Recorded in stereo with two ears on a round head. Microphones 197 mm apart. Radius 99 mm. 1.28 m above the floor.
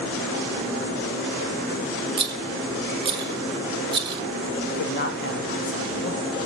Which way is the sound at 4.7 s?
50° left (ahead or behind).